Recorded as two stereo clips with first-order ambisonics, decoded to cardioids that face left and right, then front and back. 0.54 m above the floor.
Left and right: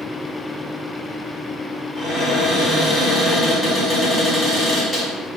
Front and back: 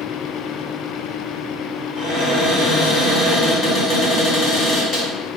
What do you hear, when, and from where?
1.9 s a cupboard door: 15° left, 1.3 m